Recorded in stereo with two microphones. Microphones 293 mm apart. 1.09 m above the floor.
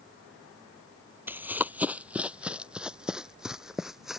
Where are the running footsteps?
5° right (ahead or behind); by 4.2 s centre (ahead or behind).